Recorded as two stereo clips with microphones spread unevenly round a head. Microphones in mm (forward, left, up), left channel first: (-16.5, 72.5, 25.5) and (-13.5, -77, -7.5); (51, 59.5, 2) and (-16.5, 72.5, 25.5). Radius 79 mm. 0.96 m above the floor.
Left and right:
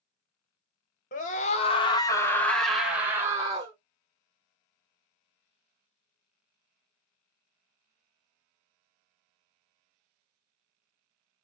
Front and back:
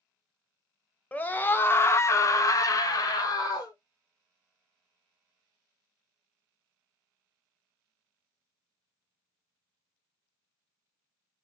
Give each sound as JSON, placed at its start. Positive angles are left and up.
{"t": 1.1, "sound": "a scream", "azimuth_deg": 50, "distance_m": 1.2}